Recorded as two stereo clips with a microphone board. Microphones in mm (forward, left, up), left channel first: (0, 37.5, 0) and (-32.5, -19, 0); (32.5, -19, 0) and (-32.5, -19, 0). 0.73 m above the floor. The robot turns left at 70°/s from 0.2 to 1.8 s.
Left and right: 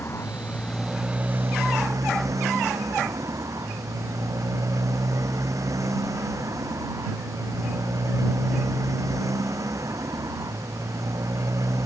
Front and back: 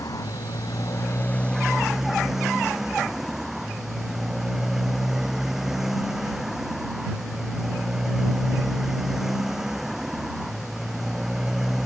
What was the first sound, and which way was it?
A motorcycle, 15° left.